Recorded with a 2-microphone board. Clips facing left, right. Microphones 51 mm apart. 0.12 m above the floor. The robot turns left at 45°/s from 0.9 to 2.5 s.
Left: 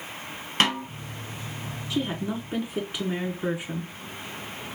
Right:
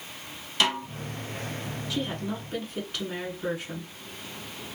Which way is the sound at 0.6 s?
40° left (ahead or behind).